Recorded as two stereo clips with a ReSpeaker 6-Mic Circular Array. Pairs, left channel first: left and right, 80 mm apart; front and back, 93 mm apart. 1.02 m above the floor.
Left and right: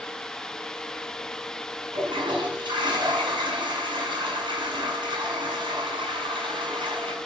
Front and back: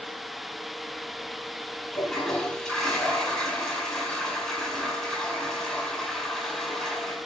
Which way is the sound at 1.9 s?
80° right.